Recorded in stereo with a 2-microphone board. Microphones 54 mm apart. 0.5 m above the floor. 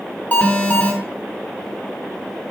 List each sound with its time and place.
0.3 s an alarm: 25° left (ahead or behind), 1.4 m